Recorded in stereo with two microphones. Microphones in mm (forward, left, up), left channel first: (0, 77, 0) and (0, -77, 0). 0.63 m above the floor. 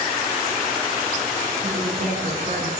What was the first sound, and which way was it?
A woman speaking, 60° right (ahead or behind).